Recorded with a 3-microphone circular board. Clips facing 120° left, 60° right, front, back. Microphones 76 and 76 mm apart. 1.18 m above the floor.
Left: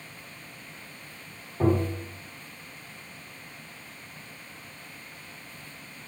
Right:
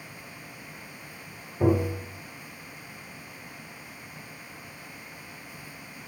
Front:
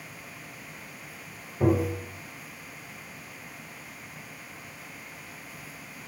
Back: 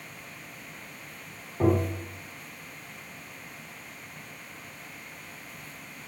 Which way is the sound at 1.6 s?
165° left.